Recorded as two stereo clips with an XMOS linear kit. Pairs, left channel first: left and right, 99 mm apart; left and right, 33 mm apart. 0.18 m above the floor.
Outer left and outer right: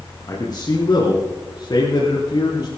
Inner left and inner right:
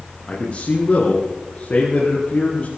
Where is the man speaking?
45° left (ahead or behind), 2.5 m; by 2.7 s 55° left (ahead or behind), 4.5 m.